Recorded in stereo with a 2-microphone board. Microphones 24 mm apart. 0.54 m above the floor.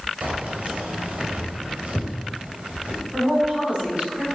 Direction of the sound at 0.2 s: 70° right (ahead or behind).